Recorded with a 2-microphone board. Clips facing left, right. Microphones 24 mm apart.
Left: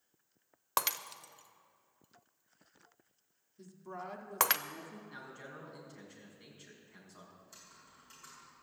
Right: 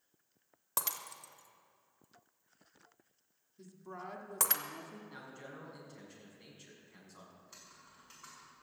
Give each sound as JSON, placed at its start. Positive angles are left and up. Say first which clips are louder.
{"t": 0.8, "sound": "breaking glass", "louder": "left 6 dB", "side_deg": 35, "distance_m": 0.6}
{"t": 3.6, "sound": "a woman speaking", "louder": "left 2 dB", "side_deg": 5, "distance_m": 1.4}
{"t": 5.1, "sound": "a man speaking", "louder": "left 1 dB", "side_deg": 0, "distance_m": 4.5}
{"t": 7.4, "sound": "typing on a keyboard", "louder": "even", "side_deg": -15, "distance_m": 6.0}